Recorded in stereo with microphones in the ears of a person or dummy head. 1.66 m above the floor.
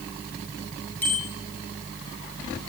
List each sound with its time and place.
1.0 s a bicycle bell: 10° left (ahead or behind), 9 m